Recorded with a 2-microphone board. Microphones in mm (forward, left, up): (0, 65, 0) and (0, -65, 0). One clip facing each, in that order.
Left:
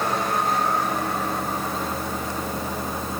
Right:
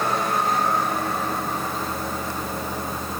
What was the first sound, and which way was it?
Only background noise.